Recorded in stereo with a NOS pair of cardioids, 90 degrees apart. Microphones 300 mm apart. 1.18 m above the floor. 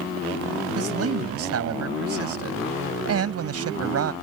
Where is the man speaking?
55° right.